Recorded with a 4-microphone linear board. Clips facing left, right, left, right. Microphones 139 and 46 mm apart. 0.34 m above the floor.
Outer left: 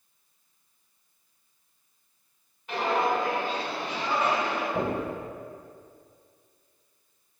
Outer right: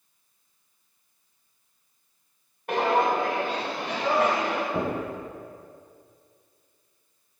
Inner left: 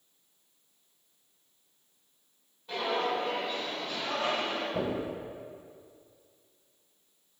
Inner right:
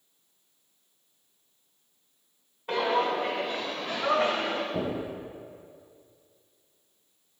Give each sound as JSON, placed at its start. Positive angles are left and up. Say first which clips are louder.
{"t": 2.7, "sound": "footsteps", "louder": "outer right 3 dB, inner right 5 dB", "side_deg": -70, "distance_m": 2.0}
{"t": 4.7, "sound": "knocking", "louder": "even, inner right 1 dB", "side_deg": -25, "distance_m": 2.5}